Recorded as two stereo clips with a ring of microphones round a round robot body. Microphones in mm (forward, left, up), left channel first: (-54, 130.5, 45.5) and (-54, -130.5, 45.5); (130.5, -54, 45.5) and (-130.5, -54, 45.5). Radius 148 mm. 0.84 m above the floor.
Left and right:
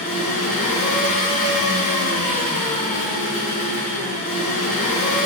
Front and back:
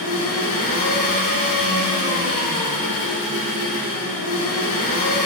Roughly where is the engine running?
Ahead left.